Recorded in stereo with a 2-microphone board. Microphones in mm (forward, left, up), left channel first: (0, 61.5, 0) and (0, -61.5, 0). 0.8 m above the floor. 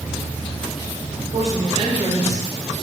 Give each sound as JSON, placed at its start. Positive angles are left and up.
{"t": 1.3, "sound": "a woman speaking", "side_deg": -60, "distance_m": 2.5}